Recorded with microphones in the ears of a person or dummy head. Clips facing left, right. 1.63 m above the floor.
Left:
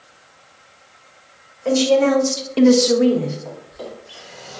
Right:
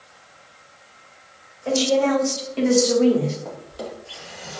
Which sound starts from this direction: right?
A drawer, at 3.5 s.